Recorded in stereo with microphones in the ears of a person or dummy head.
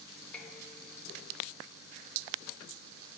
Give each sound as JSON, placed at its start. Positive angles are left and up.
{"t": 0.3, "sound": "dishes clattering", "side_deg": 10, "distance_m": 3.0}